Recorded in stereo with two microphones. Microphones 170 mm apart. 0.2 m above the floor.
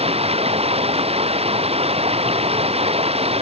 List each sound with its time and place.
0.0 s running water: 35° right (ahead or behind)